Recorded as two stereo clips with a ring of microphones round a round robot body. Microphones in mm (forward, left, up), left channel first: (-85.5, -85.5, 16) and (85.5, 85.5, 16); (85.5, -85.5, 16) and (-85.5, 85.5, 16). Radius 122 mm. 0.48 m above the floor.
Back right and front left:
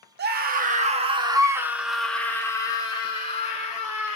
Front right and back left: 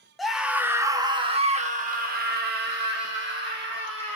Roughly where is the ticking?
No ticking in this recording.